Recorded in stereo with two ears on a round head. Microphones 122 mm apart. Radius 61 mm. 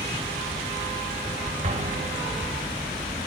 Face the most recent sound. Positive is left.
turn(degrees=-50)  # may be behind; listen again after turning